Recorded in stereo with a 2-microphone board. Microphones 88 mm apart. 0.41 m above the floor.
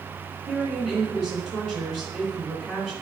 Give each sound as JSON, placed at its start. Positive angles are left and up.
{"t": 0.5, "sound": "a woman speaking", "side_deg": -5, "distance_m": 4.5}